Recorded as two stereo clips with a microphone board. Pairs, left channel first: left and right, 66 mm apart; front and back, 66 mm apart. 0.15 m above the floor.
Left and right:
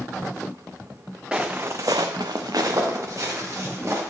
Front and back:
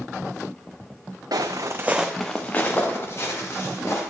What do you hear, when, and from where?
1.3 s footsteps: 165° right, 1.1 m; by 4.0 s 45° right, 3.5 m